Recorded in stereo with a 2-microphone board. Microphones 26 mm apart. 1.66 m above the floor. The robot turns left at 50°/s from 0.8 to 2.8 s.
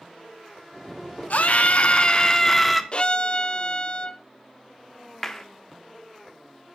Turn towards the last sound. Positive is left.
turn(degrees=15)  # may be behind; listen again after turning